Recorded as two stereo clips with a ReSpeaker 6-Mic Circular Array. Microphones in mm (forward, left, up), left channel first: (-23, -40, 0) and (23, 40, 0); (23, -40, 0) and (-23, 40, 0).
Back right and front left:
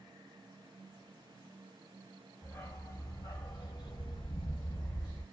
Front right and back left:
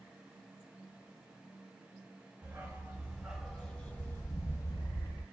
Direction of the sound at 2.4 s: Straight behind.